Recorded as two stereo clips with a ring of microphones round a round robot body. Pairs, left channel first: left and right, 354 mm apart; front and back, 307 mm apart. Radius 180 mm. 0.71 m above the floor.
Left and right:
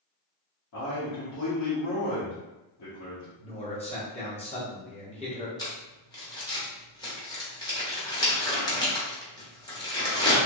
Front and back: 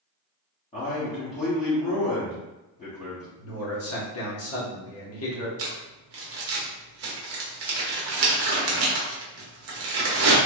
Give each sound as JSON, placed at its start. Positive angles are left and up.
{"t": 0.7, "sound": "a man speaking", "azimuth_deg": 65, "distance_m": 1.4}
{"t": 3.4, "sound": "a man speaking", "azimuth_deg": 20, "distance_m": 1.2}
{"t": 5.6, "sound": "crumpling", "azimuth_deg": 165, "distance_m": 1.0}